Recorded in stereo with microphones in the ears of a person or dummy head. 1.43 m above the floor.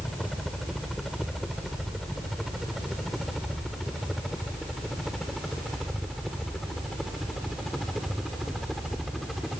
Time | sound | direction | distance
0.0 | a helicopter | 5° left (ahead or behind) | ?